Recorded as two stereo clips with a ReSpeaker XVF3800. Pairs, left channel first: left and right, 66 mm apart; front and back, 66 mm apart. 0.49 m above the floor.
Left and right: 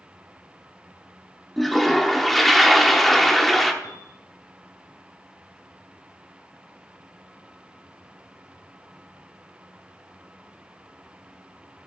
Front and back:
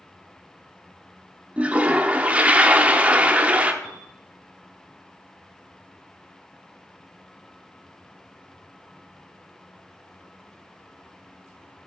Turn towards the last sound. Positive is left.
turn(degrees=90)